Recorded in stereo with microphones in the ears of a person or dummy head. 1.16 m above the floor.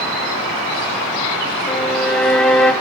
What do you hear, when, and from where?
1.7 s a violin: 5° left (ahead or behind), 0.6 m